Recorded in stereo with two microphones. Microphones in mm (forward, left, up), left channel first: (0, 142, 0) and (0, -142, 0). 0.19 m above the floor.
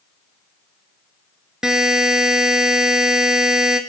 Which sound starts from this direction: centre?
A buzzer, at 1.6 s.